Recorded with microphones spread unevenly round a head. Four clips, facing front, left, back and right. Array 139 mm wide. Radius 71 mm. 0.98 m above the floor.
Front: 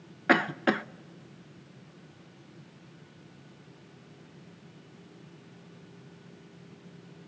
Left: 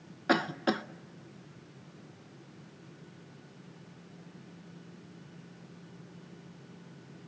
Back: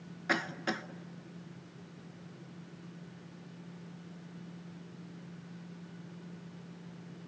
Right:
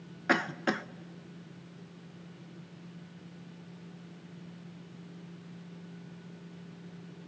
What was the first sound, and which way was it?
A cough, 15° left.